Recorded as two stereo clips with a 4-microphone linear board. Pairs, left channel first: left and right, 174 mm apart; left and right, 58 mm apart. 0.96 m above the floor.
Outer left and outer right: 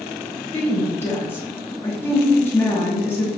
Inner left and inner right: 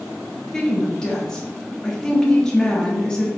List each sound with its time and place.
0.5 s a woman speaking: 15° left (ahead or behind), 1.1 m